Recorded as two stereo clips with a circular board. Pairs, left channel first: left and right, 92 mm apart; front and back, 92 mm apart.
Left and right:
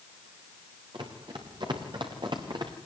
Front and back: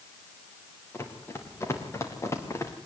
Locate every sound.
0.9 s running footsteps: 60° right, 5.5 m; by 2.7 s 55° right, 4.5 m